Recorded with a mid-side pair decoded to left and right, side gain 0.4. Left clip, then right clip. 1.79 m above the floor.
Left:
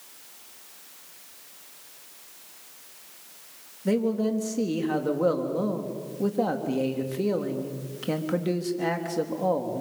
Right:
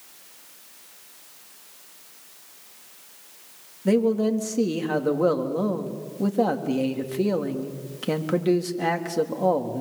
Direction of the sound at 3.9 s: 30° right.